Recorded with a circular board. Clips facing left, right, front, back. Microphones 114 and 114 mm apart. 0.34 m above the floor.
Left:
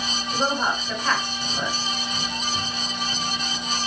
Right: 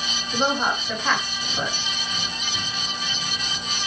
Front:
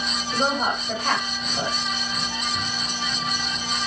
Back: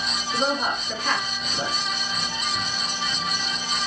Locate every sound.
0.3 s a woman speaking: 5° right, 1.8 m